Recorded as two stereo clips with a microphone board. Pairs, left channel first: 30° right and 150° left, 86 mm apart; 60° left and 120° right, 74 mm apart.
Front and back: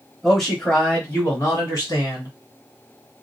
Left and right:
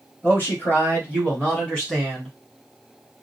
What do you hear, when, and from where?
0.2 s a man speaking: 60° left, 1.3 m; by 2.3 s 15° right, 1.8 m